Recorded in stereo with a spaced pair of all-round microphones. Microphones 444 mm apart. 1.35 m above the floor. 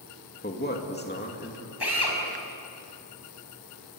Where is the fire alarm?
No fire alarm in this recording.